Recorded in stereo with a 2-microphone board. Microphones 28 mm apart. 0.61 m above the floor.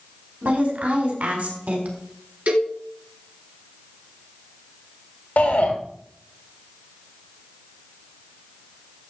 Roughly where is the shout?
Left.